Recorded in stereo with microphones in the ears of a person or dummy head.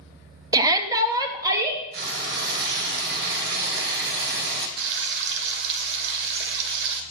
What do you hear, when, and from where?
0.5 s a shout: 25° right (ahead or behind), 0.7 m; by 1.8 s 20° right (ahead or behind), 2 m
1.9 s frying: 60° right (ahead or behind), 2 m
4.8 s frying: 60° right (ahead or behind), 1.1 m